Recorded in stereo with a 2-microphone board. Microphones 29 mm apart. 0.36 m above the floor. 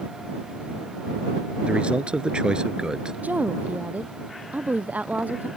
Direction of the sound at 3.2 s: 70° right (ahead or behind).